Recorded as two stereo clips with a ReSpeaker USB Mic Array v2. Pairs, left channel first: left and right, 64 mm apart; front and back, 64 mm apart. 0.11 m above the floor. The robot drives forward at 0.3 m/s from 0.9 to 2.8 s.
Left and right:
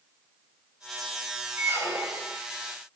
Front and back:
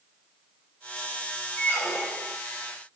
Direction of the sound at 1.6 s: 65° right.